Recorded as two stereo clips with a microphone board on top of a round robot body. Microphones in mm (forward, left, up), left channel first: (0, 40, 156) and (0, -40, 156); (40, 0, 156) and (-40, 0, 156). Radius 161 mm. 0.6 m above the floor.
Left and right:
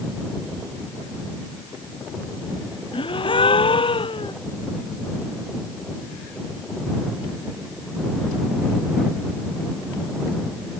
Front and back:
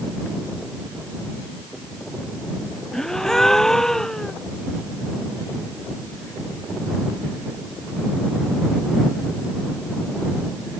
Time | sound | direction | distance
2.9 | a gasp | 85° left | ?